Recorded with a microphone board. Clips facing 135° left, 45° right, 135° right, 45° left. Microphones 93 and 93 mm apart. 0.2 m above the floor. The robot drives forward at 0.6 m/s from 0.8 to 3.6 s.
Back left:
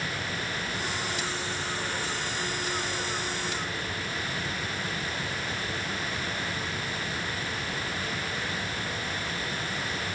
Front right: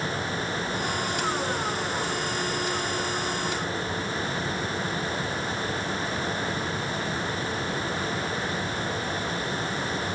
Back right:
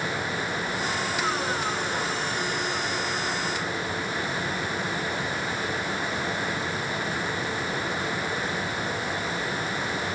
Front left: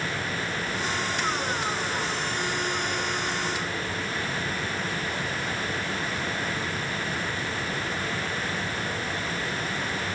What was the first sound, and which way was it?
Only background noise.